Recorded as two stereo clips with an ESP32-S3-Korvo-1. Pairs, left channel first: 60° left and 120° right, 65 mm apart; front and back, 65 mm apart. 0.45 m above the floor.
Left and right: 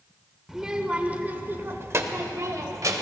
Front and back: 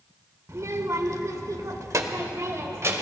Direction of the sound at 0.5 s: 160° left.